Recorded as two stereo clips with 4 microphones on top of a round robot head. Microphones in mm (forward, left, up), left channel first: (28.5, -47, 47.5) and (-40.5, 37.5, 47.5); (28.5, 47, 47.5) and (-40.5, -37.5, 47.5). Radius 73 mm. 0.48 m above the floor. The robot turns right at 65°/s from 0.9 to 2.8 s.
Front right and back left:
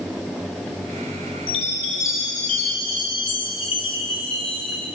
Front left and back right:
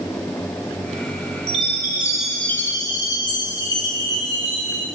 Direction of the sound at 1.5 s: 90° right.